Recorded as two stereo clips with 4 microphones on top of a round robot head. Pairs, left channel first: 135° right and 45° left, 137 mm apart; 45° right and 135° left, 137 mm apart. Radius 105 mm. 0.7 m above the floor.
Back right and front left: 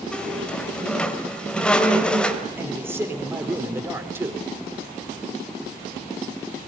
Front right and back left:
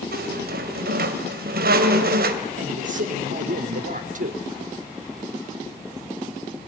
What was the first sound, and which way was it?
A squeak, 140° left.